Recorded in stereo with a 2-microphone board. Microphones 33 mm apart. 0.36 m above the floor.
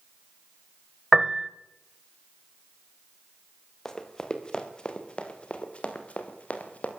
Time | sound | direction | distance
1.1 | a piano | 10° right (ahead or behind) | 0.9 m
3.9 | running footsteps | 15° left (ahead or behind) | 3.5 m